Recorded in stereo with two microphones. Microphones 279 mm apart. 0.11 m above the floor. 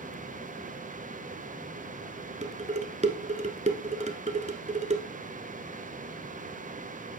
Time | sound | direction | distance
2.4 | dishes clattering | 25° right (ahead or behind) | 0.9 m